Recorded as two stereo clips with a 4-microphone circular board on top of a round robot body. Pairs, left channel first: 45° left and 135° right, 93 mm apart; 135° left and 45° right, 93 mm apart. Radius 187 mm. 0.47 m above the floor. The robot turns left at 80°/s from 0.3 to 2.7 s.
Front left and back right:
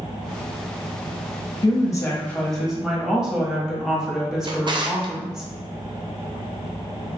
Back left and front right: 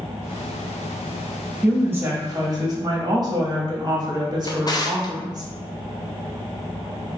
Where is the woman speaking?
35° left, 1.3 m; by 5.5 s 50° right, 1.3 m.